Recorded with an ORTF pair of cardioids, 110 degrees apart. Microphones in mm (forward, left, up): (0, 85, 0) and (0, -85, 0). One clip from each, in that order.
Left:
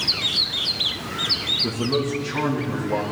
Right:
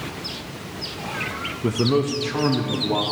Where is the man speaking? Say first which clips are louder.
Right 2 dB; 30° right, 0.7 m.